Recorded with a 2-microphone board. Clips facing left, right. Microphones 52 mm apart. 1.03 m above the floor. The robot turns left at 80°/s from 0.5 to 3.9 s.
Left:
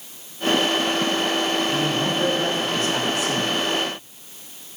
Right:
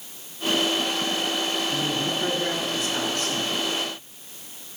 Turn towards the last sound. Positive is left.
turn(degrees=-45)